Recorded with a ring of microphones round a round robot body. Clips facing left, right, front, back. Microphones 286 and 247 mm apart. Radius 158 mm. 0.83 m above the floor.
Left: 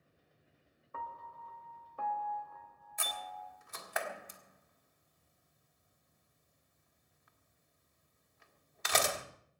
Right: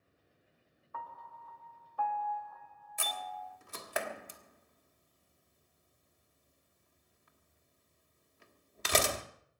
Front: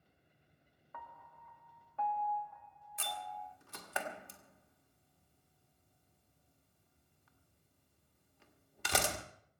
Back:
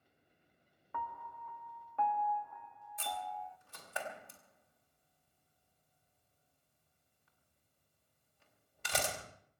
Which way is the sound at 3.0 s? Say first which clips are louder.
Right 3 dB, back 3 dB; 35° right.